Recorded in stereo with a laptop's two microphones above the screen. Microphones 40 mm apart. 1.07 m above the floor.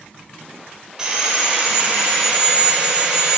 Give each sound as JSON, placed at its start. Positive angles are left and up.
{"t": 1.0, "sound": "sawing", "side_deg": -20, "distance_m": 3.5}